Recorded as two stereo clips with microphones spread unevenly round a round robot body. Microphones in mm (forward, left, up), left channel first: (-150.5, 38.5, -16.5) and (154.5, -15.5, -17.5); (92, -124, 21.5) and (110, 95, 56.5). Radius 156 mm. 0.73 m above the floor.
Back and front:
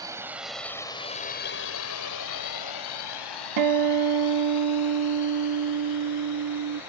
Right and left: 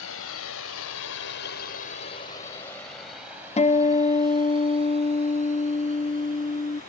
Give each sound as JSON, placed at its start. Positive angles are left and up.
{"t": 0.0, "sound": "a drone", "azimuth_deg": -90}
{"t": 3.6, "sound": "a guitar", "azimuth_deg": -40}